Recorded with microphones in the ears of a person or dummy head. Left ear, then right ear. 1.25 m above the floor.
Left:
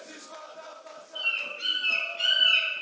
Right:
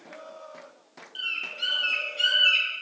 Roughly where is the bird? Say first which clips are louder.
Left 1 dB; right.